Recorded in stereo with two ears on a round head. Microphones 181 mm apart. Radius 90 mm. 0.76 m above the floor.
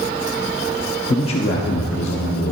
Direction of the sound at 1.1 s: 15° left (ahead or behind).